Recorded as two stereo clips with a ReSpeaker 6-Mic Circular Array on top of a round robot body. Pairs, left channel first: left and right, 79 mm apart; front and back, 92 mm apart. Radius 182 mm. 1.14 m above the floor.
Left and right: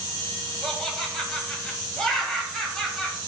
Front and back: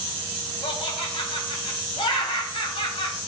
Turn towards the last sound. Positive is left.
turn(degrees=5)